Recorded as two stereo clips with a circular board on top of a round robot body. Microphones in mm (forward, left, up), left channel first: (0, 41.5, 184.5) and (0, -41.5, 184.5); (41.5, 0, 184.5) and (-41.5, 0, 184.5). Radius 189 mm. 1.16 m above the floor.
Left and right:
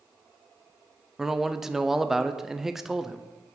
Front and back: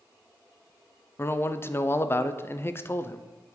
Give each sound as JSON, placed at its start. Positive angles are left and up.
{"t": 1.2, "sound": "a man speaking", "azimuth_deg": -10, "distance_m": 0.6}